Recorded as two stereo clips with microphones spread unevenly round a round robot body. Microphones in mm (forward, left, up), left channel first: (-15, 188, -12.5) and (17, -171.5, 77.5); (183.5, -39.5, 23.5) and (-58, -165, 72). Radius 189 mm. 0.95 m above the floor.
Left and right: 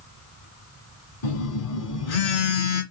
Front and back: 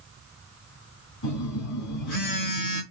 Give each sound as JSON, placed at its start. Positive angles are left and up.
{"t": 1.2, "sound": "a phone buzzing", "azimuth_deg": 45, "distance_m": 2.5}